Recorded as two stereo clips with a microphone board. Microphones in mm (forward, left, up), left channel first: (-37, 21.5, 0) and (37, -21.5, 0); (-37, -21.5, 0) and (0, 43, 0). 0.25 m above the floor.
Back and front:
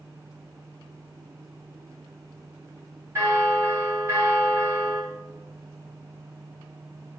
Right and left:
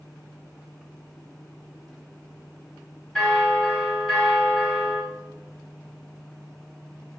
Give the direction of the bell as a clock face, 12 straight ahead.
2 o'clock.